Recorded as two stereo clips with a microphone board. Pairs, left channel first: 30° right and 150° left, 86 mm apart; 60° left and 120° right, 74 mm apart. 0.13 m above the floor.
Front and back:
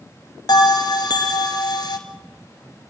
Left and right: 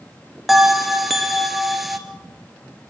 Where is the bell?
35° right, 1.7 m.